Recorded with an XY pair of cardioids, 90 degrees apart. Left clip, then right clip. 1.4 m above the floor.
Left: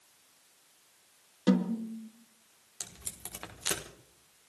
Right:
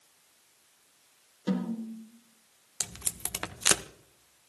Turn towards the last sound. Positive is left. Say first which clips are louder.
# right 8 dB
turn(degrees=-65)